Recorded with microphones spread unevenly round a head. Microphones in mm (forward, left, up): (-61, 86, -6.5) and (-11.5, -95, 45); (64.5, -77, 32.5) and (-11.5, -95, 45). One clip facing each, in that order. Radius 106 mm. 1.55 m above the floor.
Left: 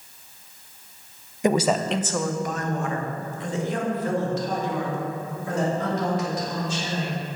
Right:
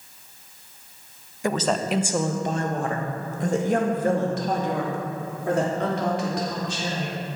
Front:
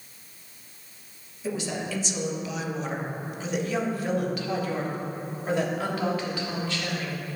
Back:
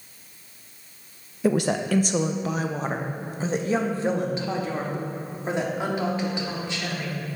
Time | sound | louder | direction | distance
1.4 | a woman speaking | left 3 dB, back 8 dB | straight behind | 0.7 m